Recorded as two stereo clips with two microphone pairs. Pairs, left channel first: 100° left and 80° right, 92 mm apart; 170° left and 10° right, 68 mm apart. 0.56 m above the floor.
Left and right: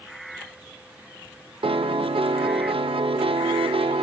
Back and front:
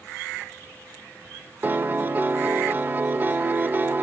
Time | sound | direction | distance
1.6 | a piano | 70° right | 0.5 m